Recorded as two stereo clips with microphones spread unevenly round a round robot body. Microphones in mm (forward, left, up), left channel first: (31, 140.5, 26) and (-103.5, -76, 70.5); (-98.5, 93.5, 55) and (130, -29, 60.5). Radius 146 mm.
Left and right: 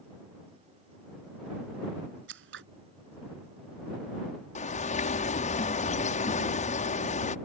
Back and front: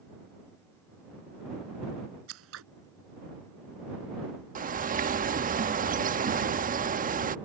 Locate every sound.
2.3 s scissors: 70° right
4.5 s a bird: 20° left